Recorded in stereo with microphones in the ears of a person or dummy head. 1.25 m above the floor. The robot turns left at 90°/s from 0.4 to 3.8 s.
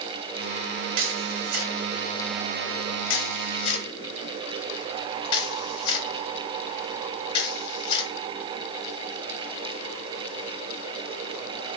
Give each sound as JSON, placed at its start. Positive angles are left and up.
{"t": 1.0, "sound": "a camera shutter", "side_deg": -70, "distance_m": 2.5}